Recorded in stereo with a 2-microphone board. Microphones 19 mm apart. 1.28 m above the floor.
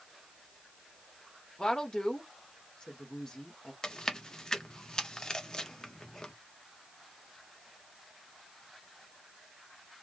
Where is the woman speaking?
40° left (ahead or behind), 1.0 m.